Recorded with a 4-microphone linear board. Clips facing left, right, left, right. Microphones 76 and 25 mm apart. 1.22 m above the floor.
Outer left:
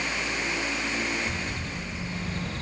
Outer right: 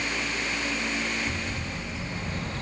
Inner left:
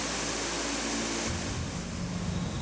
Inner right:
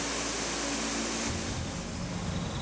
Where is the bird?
25° right (ahead or behind), 1.4 m.